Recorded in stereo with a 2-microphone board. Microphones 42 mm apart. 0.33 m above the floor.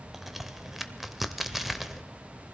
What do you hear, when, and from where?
0.1 s a crack: 5° right (ahead or behind), 0.8 m